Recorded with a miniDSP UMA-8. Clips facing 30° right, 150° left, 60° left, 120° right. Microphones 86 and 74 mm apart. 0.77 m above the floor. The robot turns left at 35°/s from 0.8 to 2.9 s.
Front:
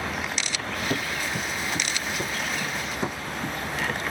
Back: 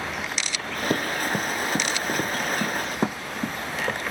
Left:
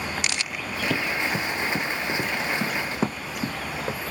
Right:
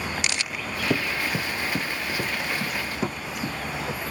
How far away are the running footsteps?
About 0.9 m.